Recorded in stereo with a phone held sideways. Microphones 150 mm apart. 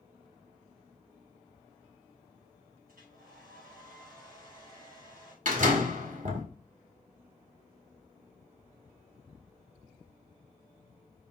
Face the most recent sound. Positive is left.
turn(degrees=-60)  # may be behind; listen again after turning